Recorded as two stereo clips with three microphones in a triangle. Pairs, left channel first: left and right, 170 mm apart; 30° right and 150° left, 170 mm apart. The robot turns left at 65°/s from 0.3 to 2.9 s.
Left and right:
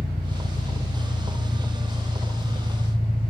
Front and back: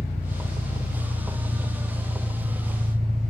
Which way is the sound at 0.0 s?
145° right.